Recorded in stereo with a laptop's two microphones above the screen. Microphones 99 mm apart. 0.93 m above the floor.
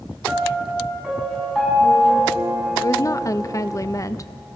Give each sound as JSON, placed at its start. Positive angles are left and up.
{"t": 0.3, "sound": "a piano", "side_deg": 0, "distance_m": 7.5}
{"t": 2.8, "sound": "a woman speaking", "side_deg": 35, "distance_m": 0.7}